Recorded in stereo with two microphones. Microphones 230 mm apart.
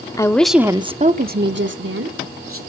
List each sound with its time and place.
0.2 s a woman speaking: 15° left (ahead or behind), 0.9 m; by 2.6 s 70° right (ahead or behind), 1.7 m